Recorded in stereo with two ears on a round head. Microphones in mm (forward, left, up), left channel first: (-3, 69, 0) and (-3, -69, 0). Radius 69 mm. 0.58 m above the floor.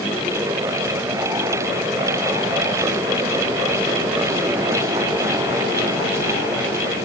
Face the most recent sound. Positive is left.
No sound to turn to.